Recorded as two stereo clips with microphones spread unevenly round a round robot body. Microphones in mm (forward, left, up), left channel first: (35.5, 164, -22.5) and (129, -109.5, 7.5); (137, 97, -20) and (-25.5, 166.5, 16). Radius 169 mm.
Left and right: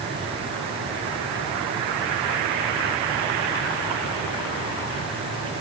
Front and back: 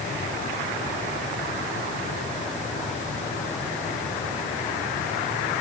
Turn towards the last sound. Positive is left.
No sound to turn to.